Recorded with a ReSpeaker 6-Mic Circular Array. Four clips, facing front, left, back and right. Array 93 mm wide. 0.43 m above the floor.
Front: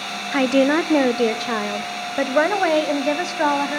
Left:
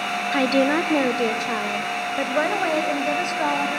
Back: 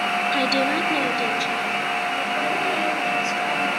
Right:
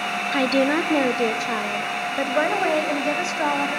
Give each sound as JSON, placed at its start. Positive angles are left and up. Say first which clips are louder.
{"t": 0.3, "sound": "a woman speaking", "louder": "left 1 dB, front 9 dB", "azimuth_deg": 0, "distance_m": 0.9}